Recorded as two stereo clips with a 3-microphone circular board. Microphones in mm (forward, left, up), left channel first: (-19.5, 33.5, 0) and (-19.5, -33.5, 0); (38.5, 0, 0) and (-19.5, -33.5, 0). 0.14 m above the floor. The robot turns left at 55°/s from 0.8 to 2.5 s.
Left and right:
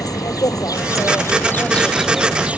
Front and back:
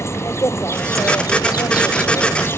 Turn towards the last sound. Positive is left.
turn(degrees=-20)